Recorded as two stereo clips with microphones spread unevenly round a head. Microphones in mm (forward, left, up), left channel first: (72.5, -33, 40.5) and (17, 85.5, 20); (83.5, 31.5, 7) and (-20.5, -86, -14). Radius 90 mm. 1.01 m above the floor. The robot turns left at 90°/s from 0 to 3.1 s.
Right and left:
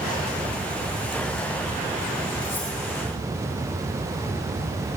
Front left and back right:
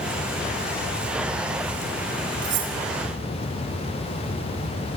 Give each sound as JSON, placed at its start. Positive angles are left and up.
{"t": 2.4, "sound": "cutlery clinking", "azimuth_deg": -130, "distance_m": 5.5}